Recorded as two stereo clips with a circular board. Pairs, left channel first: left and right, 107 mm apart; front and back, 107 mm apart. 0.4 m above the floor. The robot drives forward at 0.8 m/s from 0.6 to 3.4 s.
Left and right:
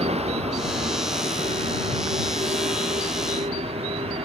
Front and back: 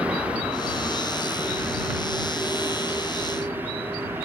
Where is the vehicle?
100° right; by 4.2 s 110° right.